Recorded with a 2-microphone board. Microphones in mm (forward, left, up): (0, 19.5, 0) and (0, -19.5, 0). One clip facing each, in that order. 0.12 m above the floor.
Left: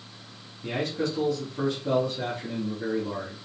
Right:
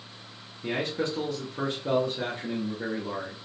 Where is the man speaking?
30° right (ahead or behind), 1.8 m.